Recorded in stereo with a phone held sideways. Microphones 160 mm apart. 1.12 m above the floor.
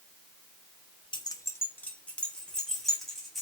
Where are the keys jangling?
30° left (ahead or behind), 0.5 m; by 3.4 s centre (ahead or behind), 2 m.